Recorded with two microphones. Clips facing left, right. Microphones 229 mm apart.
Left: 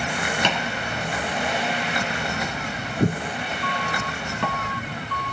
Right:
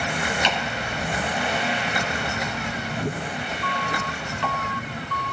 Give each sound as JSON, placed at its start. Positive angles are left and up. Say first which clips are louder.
{"t": 0.4, "sound": "chopping", "louder": "left 1 dB", "side_deg": 55, "distance_m": 2.5}